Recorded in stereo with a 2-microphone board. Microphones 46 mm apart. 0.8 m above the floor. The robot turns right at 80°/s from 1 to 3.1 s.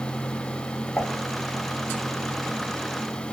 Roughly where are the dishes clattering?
Centre.